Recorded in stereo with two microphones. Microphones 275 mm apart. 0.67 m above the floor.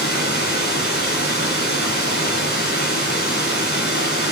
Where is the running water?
35° left (ahead or behind), 3 m.